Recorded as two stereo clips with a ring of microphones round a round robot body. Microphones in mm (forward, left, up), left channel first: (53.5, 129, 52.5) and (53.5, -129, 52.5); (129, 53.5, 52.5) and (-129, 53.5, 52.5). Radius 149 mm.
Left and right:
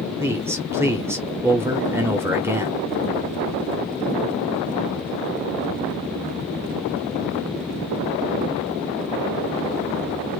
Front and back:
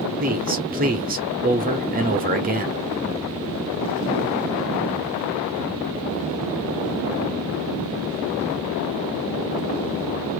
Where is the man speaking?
165° right, 1.0 m.